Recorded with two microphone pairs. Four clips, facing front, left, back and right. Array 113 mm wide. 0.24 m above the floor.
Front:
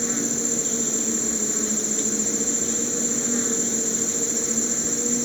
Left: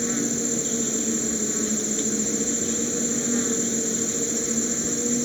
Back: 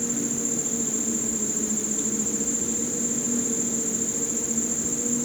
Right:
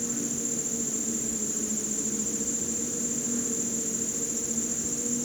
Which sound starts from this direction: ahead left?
An insect, at 0.0 s.